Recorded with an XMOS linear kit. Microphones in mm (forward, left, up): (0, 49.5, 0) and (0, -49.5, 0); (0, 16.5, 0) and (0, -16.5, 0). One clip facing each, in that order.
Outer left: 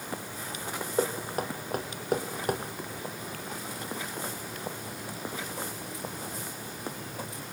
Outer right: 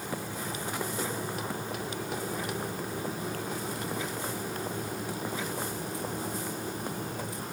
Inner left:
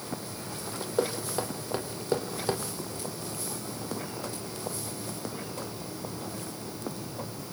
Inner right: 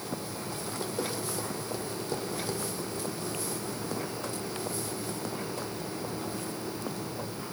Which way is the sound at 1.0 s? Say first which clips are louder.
Outer left 4 dB, inner left 8 dB; 45° left (ahead or behind).